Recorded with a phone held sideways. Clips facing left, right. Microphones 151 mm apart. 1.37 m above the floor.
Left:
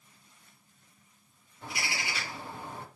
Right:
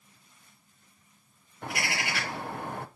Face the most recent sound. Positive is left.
turn(degrees=-65)  # may be behind; listen again after turning